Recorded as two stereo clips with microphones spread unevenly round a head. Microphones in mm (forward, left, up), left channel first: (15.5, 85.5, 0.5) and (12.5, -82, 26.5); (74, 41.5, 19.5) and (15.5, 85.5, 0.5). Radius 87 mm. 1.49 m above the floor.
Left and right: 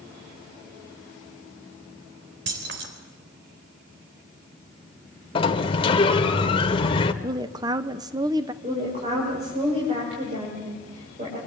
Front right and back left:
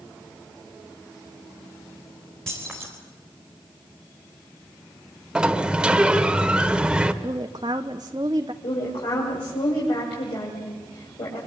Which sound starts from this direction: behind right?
Keys jangling, at 2.5 s.